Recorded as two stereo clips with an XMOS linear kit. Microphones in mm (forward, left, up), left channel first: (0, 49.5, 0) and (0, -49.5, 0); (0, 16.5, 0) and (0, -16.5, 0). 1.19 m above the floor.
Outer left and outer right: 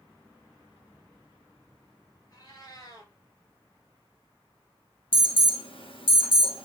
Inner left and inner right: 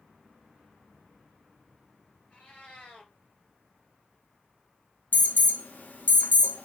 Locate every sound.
2.3 s a cat meowing: 40° left (ahead or behind), 3.5 m
5.1 s an alarm: 70° left (ahead or behind), 1.4 m